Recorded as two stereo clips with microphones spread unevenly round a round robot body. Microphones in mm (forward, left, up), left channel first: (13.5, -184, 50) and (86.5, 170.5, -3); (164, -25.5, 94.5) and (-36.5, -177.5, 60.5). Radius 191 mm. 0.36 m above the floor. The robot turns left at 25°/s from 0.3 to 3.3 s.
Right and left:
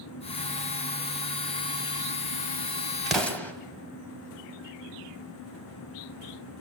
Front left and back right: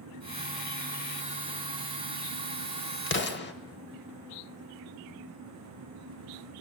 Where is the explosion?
5° right, 1.4 m; by 3.5 s 15° right, 1.4 m.